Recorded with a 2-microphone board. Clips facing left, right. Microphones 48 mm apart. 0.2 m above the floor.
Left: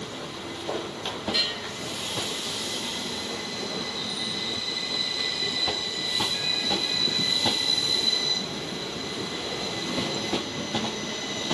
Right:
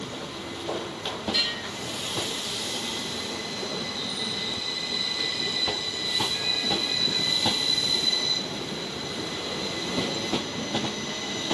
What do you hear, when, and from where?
1.3 s a bell: 15° left (ahead or behind), 9 m